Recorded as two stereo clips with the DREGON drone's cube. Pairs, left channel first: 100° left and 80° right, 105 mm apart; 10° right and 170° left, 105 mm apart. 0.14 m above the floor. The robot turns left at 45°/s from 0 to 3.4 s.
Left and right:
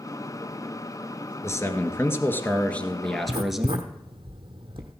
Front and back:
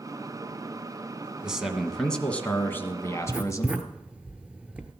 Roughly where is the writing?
Right.